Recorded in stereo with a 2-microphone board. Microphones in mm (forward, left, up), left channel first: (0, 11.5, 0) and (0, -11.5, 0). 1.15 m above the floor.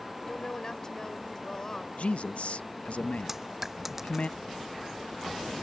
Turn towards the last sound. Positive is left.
turn(degrees=-10)  # may be behind; listen again after turning